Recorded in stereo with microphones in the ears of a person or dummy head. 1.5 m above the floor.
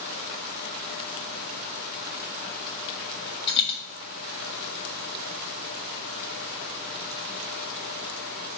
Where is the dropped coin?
25° left (ahead or behind), 1.0 m.